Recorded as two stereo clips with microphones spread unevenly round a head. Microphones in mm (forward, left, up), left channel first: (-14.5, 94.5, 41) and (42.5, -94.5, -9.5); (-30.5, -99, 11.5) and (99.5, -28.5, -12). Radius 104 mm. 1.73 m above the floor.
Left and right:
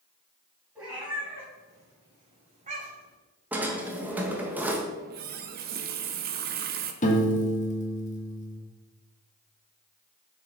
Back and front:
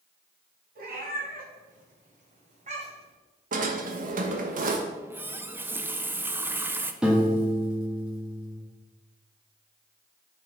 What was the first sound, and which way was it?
A cat meowing, 20° left.